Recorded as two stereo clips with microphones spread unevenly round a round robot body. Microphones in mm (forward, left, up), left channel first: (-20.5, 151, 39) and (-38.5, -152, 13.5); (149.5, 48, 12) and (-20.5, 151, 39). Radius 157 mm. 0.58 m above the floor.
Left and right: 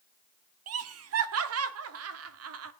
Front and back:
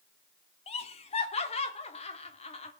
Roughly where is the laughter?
Right.